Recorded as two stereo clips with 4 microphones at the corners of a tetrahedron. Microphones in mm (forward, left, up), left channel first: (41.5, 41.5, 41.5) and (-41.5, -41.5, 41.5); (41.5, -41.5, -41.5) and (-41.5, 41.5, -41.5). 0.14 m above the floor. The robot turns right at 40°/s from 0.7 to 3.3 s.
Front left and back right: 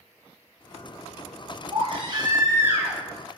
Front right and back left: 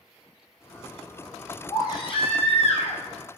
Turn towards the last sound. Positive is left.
turn(degrees=-40)